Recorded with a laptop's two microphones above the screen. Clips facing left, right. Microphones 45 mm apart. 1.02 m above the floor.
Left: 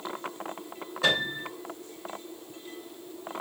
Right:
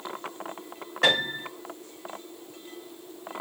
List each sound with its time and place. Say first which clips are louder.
1.0 s a piano: right 3 dB; 75° right (ahead or behind), 6 m